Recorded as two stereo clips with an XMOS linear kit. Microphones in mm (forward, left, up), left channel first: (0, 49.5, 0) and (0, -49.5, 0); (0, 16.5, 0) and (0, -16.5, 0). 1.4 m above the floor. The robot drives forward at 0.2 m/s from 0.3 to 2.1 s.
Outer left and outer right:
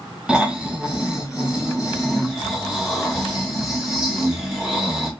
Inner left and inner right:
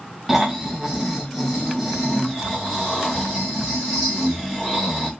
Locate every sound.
0.3 s snoring: 10° right (ahead or behind), 0.6 m; by 5.1 s 5° right (ahead or behind), 1.0 m